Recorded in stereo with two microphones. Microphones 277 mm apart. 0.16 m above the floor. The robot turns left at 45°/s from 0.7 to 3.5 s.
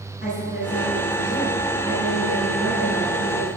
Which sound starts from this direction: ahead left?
A woman speaking, at 0.2 s.